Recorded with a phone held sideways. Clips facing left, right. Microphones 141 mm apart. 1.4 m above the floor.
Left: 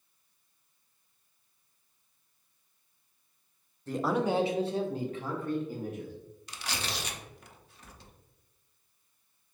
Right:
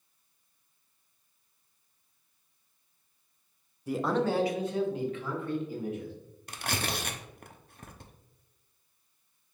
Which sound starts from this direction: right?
Tearing paper, at 6.5 s.